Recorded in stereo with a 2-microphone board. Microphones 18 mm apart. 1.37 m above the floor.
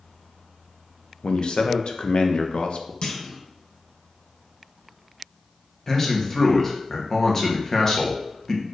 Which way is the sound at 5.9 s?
20° left (ahead or behind).